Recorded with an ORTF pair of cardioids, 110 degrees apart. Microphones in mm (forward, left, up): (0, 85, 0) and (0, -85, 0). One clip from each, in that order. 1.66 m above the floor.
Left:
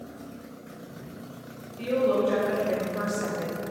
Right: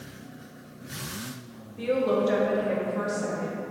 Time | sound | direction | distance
1.8 | a woman speaking | 35° right | 0.9 m